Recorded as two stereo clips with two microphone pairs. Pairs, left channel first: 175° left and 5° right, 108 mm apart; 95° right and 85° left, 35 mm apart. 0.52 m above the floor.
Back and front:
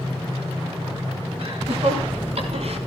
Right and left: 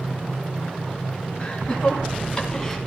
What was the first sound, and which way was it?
Laughter, 35° right.